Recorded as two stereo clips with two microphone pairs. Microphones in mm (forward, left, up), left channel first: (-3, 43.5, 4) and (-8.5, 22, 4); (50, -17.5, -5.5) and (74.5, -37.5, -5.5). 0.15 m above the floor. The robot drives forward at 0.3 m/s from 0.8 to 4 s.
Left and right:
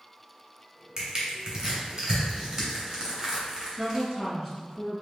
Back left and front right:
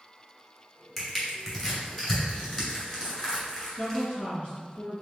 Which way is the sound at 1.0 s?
135° right.